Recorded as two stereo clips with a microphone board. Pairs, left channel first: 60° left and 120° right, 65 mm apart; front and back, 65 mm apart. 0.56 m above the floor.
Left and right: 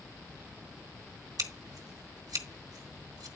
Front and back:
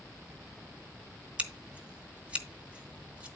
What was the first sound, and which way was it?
Scissors, 110° right.